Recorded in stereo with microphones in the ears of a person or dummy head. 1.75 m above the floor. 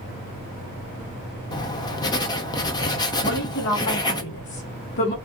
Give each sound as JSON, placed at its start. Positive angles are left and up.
{"t": 1.5, "sound": "writing", "side_deg": 20, "distance_m": 0.5}
{"t": 3.2, "sound": "a woman speaking", "side_deg": 55, "distance_m": 1.2}